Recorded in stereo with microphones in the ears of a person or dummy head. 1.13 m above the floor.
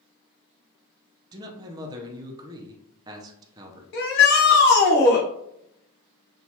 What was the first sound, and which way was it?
A man speaking, 20° right (ahead or behind).